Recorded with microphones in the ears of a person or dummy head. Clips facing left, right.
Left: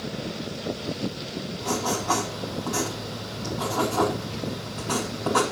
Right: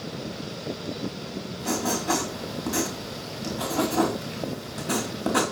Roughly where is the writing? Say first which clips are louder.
Right 1 dB; right.